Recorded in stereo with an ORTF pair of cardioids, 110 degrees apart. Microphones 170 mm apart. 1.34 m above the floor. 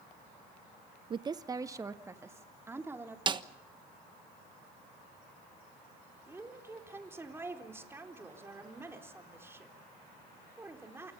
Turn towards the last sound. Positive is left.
turn(degrees=-15)